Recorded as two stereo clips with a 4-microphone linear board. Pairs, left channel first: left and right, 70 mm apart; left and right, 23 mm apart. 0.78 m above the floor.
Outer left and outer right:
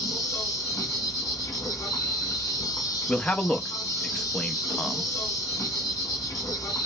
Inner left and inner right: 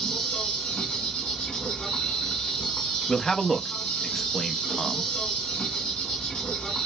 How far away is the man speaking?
About 0.5 m.